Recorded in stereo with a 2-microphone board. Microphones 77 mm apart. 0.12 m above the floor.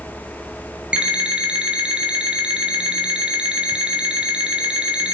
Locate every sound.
0.9 s an alarm clock: 15° right (ahead or behind), 1.6 m